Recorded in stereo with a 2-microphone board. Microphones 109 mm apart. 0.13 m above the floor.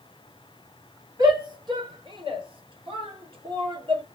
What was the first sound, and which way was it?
A shout, 40° right (ahead or behind).